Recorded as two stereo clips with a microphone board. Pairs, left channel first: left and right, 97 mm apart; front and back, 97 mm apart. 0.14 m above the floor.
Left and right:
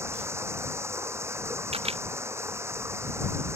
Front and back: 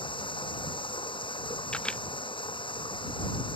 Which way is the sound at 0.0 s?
30° right.